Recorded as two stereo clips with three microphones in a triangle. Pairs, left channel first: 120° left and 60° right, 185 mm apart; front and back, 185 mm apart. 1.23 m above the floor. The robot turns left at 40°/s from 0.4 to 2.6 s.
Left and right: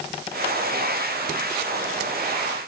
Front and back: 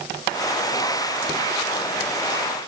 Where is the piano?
No piano in this recording.